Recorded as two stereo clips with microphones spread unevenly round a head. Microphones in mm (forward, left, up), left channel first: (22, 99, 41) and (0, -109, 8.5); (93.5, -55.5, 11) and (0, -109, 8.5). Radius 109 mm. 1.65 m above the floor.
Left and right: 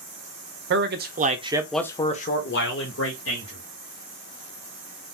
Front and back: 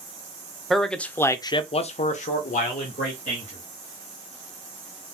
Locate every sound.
0.7 s a man speaking: 60° right, 1.0 m; by 3.6 s 65° left, 1.6 m